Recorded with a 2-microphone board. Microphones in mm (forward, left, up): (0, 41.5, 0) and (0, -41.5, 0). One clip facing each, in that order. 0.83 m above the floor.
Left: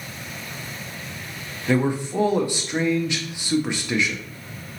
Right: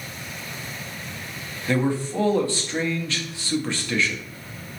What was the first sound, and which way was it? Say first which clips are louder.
A man speaking: left 1 dB; 15° left (ahead or behind).